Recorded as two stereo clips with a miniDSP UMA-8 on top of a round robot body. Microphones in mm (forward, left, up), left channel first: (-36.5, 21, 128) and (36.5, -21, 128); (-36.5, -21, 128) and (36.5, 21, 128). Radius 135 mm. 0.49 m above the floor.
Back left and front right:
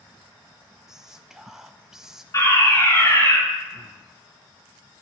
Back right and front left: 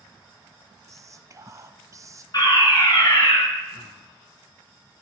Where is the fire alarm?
170° right, 4 m.